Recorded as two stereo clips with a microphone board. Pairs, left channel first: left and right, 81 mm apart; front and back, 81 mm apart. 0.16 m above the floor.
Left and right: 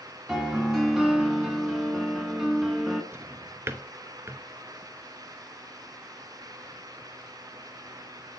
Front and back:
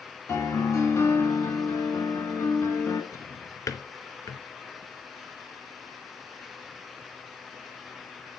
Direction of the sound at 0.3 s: 10° right.